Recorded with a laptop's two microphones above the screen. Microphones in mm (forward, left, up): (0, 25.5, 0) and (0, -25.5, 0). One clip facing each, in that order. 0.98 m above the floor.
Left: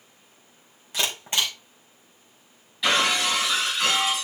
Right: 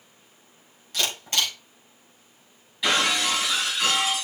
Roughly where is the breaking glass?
Centre.